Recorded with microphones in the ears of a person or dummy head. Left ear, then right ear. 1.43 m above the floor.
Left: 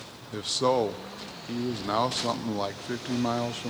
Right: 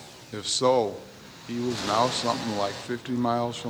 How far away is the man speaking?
About 0.6 m.